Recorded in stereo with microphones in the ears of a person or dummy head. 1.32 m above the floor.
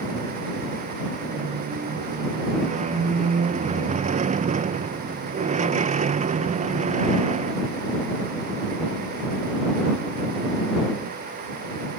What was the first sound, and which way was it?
A squeak, 35° right (ahead or behind).